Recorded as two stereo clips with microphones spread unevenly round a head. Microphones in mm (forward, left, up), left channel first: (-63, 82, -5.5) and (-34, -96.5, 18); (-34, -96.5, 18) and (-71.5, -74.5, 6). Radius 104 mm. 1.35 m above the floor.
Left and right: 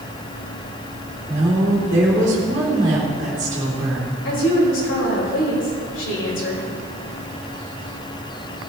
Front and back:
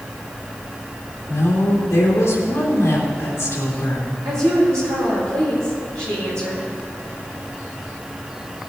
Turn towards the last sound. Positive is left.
turn(degrees=105)